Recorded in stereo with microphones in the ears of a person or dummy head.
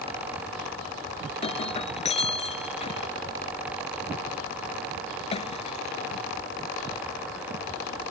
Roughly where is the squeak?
I don't hear a squeak.